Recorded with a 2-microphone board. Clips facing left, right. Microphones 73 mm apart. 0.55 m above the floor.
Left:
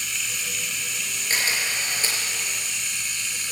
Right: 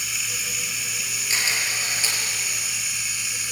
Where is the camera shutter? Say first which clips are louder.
Left 1 dB; 45° left (ahead or behind), 5.5 m.